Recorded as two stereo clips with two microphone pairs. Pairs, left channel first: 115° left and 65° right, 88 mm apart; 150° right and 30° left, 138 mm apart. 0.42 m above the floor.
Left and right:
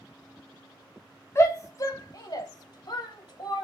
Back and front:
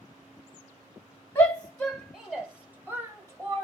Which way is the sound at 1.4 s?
150° left.